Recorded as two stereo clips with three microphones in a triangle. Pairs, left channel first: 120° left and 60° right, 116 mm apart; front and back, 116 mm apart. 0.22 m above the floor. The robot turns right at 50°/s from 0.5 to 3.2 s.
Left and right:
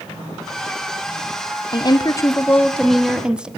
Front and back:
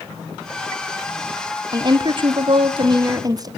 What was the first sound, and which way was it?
A woman speaking, 150° left.